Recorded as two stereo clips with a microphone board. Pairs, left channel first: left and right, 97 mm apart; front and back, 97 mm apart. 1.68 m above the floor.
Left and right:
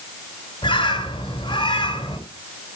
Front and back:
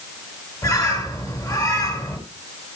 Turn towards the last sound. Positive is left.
turn(degrees=55)